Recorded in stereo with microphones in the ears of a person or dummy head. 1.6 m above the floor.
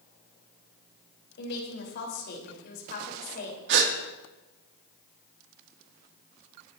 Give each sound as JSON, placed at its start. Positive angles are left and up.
{"t": 1.4, "sound": "a woman speaking", "side_deg": 70, "distance_m": 4.5}
{"t": 3.7, "sound": "a gasp", "side_deg": -70, "distance_m": 2.5}